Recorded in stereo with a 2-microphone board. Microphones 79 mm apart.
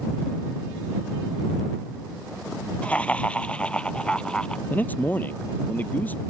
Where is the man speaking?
20° left (ahead or behind).